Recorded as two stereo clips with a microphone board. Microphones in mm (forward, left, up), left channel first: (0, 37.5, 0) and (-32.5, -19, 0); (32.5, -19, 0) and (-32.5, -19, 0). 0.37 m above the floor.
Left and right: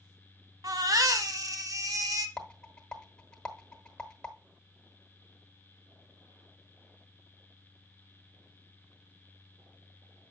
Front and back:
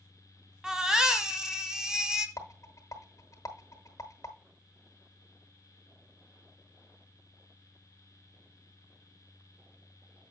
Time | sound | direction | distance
0.6 | a baby crying | 100° right | 1.0 m
2.4 | a rattle | 15° right | 1.4 m